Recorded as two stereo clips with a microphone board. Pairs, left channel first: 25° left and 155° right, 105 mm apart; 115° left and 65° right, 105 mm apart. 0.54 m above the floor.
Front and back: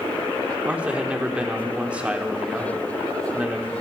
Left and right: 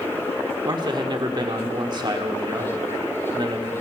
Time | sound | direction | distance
0.7 | a man speaking | 85° right | 1.3 m